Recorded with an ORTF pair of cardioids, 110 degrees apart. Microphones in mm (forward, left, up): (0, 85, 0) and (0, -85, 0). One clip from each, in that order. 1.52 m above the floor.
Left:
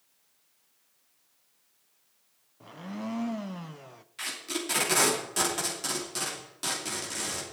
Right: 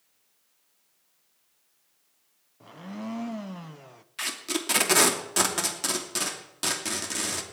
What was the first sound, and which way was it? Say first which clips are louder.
A blender: even; straight ahead.